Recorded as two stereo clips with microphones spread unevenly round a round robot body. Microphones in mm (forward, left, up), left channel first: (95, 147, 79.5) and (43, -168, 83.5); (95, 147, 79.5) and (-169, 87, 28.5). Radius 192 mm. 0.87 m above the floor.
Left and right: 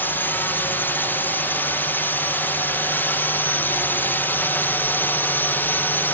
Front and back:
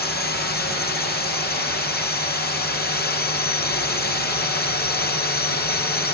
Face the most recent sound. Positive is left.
turn(degrees=5)